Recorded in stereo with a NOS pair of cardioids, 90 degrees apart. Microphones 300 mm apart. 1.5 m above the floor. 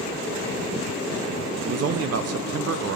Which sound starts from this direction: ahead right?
A man speaking, at 1.6 s.